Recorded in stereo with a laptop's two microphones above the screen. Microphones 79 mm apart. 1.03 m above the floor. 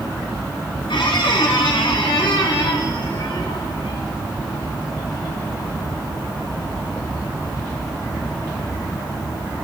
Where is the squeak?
80° left, 2 m.